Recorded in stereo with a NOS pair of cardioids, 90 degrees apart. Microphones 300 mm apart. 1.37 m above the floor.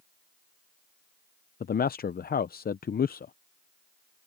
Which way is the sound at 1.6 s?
30° left.